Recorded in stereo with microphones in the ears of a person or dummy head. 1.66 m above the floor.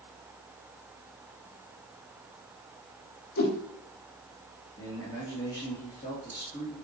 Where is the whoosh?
60° left (ahead or behind), 2.5 m.